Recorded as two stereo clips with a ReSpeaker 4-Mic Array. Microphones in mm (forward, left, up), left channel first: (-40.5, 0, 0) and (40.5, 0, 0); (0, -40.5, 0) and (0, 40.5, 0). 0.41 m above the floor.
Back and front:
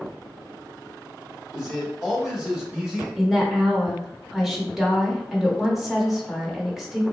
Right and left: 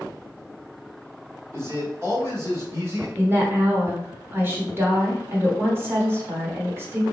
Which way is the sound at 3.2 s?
75° left.